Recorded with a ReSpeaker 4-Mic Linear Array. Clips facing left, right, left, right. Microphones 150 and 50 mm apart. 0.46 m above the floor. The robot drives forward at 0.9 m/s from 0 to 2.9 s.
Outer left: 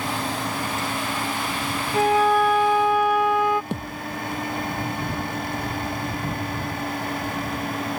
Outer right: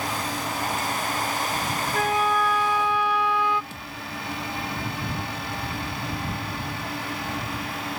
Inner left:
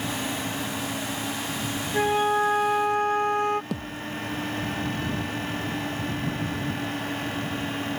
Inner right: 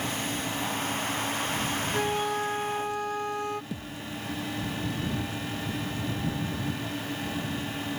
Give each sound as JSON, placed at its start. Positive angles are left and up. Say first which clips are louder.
{"t": 1.9, "sound": "a flute", "louder": "outer left 6 dB, inner left 8 dB", "side_deg": 30}
{"t": 3.7, "sound": "a thud", "louder": "outer left 8 dB, inner left 5 dB", "side_deg": 70}